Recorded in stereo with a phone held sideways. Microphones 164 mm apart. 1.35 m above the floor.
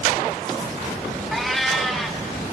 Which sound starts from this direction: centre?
A cat meowing, at 1.3 s.